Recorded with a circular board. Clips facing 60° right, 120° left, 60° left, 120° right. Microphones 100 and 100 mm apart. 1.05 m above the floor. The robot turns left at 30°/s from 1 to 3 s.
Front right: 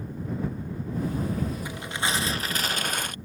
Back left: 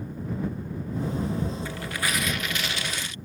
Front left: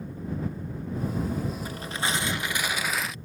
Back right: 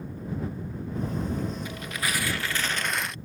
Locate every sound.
1.6 s tearing paper: 10° left; by 3.2 s 30° right